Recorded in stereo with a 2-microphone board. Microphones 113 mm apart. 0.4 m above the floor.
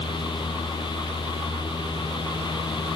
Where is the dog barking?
No dog barking in this recording.